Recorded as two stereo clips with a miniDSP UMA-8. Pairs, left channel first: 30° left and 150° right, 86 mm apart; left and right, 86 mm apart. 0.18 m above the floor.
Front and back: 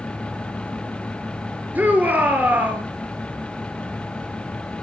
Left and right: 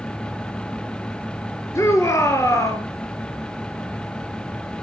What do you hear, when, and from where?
1.8 s a shout: 140° left, 2.5 m